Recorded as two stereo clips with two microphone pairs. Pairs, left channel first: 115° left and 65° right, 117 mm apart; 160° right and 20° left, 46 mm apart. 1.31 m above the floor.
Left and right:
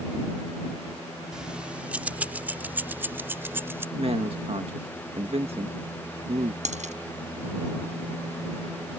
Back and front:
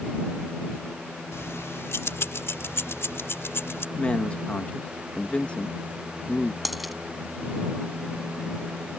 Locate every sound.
1.3 s keys jangling: 145° right; by 3.9 s 135° right
4.0 s a man speaking: 100° right
6.7 s a dropped coin: 70° right